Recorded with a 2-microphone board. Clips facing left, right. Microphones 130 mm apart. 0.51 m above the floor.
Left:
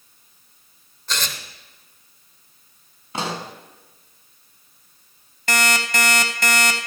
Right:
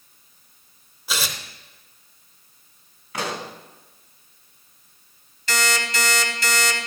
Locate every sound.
1.1 s tearing paper: 10° right (ahead or behind), 1.0 m
3.1 s a pop: 25° left (ahead or behind), 1.1 m
5.5 s an alarm clock: 55° left (ahead or behind), 1.5 m